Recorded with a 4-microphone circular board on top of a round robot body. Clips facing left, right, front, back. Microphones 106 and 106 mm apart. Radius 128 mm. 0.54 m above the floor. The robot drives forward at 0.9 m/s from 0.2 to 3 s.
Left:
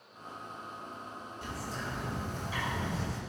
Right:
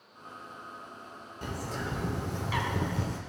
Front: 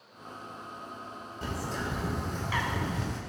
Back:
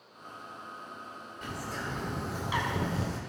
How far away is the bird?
About 1.3 m.